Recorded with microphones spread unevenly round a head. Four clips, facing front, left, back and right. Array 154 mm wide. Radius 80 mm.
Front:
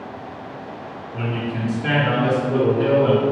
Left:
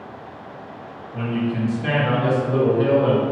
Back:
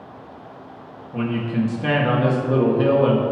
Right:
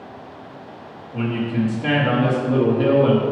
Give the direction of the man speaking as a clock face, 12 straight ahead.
5 o'clock.